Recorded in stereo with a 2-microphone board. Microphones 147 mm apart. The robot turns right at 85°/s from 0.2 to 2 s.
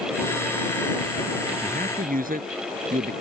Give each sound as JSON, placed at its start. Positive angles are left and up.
{"t": 1.6, "sound": "a man speaking", "azimuth_deg": -120}